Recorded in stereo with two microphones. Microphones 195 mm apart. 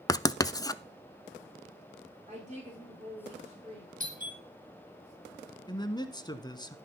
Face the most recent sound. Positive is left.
turn(degrees=20)  # may be behind; listen again after turning